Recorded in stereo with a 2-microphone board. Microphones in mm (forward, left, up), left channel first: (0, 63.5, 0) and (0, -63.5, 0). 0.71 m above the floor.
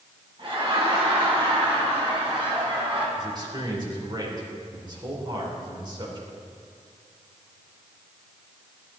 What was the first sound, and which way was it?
Laughter, 45° right (ahead or behind).